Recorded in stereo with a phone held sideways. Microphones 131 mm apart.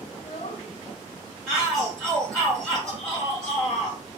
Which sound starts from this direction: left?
A child speaking, at 0.1 s.